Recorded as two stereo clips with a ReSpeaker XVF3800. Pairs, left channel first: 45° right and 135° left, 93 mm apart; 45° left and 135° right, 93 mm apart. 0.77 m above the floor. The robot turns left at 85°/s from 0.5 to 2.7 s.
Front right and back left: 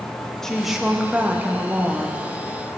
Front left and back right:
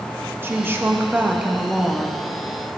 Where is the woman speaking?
125° right, 0.5 m; by 2.3 s 85° left, 0.5 m.